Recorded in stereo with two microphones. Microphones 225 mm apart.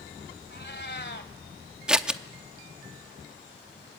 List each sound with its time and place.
0.5 s a cat meowing: 50° left (ahead or behind), 1.3 m
1.9 s scissors: 5° right (ahead or behind), 0.8 m